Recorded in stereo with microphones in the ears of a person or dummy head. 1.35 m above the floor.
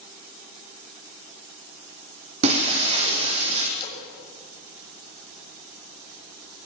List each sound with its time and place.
2.4 s breaking glass: 35° right (ahead or behind), 5.5 m
3.8 s a splash: 25° left (ahead or behind), 6.5 m